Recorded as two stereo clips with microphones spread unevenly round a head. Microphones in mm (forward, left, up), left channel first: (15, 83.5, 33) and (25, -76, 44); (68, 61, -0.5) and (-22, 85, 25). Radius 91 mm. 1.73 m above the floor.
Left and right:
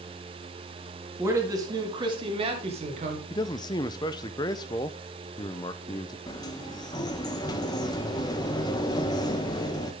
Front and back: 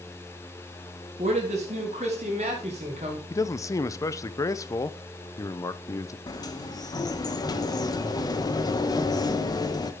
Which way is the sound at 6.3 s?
30° left.